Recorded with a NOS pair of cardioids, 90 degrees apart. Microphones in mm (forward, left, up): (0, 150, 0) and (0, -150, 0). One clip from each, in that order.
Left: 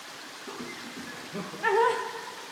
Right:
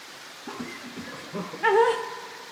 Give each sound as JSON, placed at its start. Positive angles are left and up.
{"t": 0.5, "sound": "laughter", "azimuth_deg": -30, "distance_m": 1.3}